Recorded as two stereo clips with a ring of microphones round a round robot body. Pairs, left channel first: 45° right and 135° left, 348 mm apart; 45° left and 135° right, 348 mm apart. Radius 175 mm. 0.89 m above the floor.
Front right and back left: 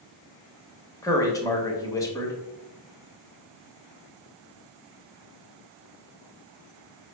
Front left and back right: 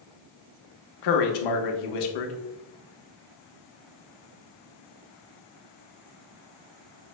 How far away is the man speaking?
About 0.9 m.